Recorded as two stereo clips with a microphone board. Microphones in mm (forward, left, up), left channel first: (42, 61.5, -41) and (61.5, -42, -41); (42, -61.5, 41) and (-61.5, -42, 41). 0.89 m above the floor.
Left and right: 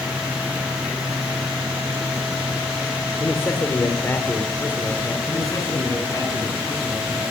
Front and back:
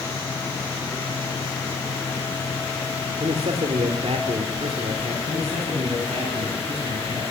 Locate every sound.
3.2 s a man speaking: 170° left, 3 m
5.3 s a man speaking: 155° left, 9.5 m